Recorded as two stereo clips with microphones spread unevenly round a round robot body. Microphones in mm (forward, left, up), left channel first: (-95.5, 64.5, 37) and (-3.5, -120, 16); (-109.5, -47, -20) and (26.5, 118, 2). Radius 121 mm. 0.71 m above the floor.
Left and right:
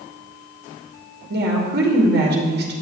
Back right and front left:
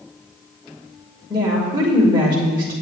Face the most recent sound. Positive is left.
turn(degrees=-25)